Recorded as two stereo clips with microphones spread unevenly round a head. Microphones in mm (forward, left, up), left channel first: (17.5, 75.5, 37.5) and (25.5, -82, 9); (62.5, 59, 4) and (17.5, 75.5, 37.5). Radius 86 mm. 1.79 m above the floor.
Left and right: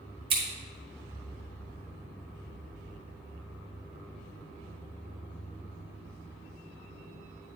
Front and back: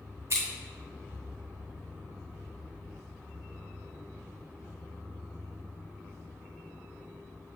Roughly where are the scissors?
Behind right.